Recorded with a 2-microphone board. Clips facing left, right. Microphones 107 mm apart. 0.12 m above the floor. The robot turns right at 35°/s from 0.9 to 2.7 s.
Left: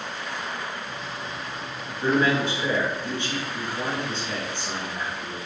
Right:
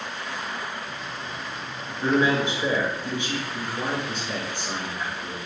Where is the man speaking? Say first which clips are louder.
Even; 20° right (ahead or behind), 1.1 m; by 5.4 s 15° right (ahead or behind), 1.1 m.